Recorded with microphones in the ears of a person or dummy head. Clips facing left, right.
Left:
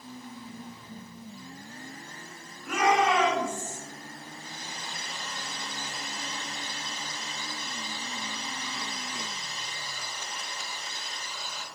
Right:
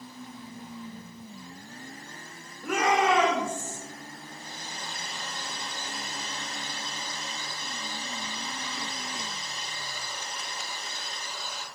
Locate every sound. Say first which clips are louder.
2.6 s a shout: even; 65° right (ahead or behind), 3 m; by 3.8 s 55° right (ahead or behind), 2.5 m
4.3 s a hair dryer: even; 50° right (ahead or behind), 4 m